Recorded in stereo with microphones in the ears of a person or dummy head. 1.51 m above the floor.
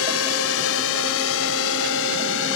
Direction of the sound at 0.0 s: 80° left.